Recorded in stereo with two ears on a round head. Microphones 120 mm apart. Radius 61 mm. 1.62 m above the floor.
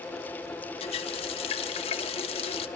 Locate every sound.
0.8 s a running tap: 45° left (ahead or behind), 1.5 m